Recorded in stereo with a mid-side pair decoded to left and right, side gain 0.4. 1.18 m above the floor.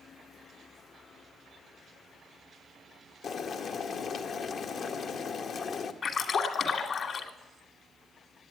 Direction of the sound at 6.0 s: 60° left.